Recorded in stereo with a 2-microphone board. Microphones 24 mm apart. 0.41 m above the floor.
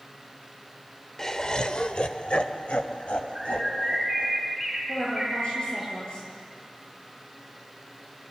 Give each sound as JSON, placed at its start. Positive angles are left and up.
{"t": 1.2, "sound": "laughter", "side_deg": 20, "distance_m": 1.2}
{"t": 3.4, "sound": "a bird", "side_deg": -5, "distance_m": 4.5}
{"t": 4.9, "sound": "a woman speaking", "side_deg": 50, "distance_m": 9.0}